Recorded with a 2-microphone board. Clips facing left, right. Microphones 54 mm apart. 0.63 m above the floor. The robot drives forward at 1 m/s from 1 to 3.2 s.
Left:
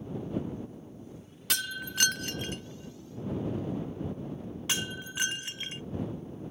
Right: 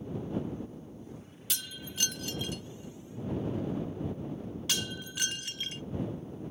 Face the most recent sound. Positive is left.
turn(degrees=25)  # may be behind; listen again after turning